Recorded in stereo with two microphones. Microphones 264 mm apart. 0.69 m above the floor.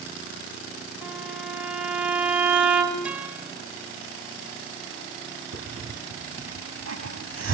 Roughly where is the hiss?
Right.